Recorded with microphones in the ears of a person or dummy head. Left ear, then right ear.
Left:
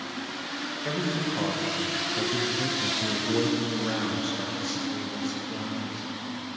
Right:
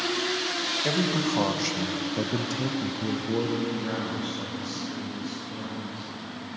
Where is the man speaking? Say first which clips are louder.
Right 3 dB; 75° right (ahead or behind), 1.1 m; by 6.1 s 35° left (ahead or behind), 2 m.